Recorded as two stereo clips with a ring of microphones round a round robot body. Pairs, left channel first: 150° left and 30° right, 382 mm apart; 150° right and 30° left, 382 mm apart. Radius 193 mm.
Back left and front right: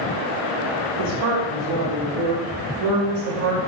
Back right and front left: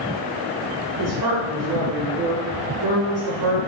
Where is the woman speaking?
10° right, 0.8 m.